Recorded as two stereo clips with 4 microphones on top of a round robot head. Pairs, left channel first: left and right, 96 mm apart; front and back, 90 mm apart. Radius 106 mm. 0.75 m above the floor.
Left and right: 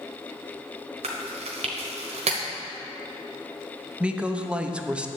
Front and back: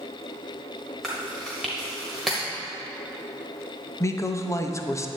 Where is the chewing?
85° right, 1.0 m.